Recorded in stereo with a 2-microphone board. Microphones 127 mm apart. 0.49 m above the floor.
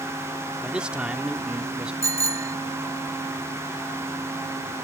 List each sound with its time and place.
0.6 s a man speaking: 10° right (ahead or behind)
2.0 s a bicycle bell: 25° right (ahead or behind)